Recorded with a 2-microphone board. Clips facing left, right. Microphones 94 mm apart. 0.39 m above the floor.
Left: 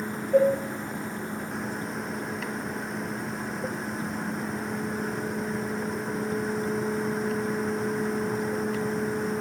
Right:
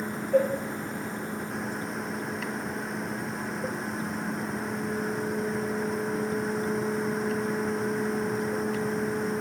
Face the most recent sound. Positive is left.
turn(degrees=10)  # may be behind; listen again after turning